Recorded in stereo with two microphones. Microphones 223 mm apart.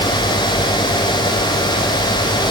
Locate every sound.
Only background noise.